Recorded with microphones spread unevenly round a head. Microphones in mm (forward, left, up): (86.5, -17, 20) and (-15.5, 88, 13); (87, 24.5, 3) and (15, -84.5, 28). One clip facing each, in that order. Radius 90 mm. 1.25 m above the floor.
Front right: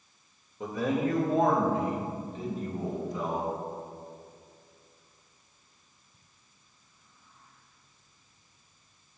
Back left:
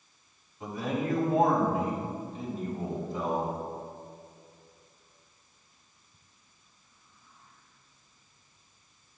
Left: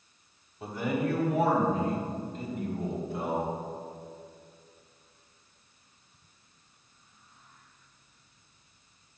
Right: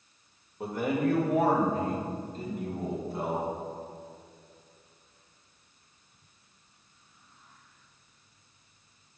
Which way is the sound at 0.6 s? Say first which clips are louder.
Front right 3 dB, right 2 dB; 85° right.